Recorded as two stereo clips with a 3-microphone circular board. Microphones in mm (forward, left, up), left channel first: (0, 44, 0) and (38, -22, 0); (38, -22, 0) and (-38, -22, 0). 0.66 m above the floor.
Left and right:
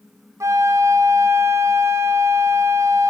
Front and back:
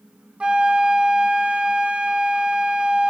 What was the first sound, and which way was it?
A flute, 105° right.